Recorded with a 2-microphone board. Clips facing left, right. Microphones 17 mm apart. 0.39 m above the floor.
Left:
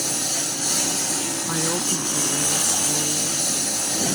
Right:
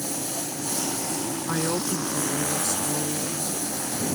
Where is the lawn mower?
60° left (ahead or behind).